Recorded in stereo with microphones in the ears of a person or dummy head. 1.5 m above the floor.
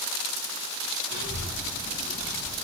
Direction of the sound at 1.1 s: 20° right (ahead or behind).